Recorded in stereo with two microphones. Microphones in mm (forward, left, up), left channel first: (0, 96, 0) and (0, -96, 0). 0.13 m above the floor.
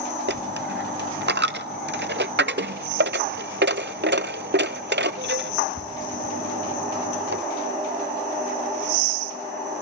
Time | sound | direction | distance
0.3 | a dropped coin | 60° right (ahead or behind) | 0.6 m